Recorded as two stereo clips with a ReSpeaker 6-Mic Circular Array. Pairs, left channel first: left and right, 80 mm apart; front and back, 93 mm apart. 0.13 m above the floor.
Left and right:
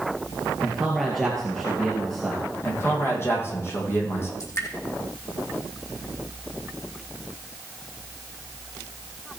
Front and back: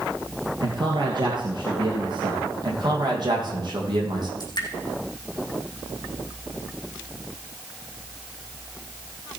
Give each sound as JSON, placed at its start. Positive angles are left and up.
{"t": 0.6, "sound": "a man speaking", "azimuth_deg": 175, "distance_m": 2.5}
{"t": 2.6, "sound": "a man speaking", "azimuth_deg": 145, "distance_m": 5.0}
{"t": 4.4, "sound": "dripping", "azimuth_deg": 40, "distance_m": 4.0}